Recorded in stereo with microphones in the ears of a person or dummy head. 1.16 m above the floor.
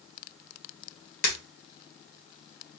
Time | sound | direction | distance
1.2 | breaking glass | 55° left (ahead or behind) | 1.9 m